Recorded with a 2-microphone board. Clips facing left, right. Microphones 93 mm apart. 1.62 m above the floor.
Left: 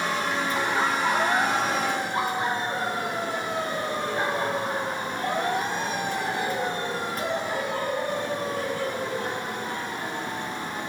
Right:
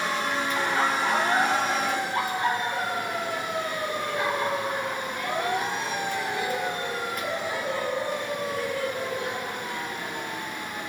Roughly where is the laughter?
Centre.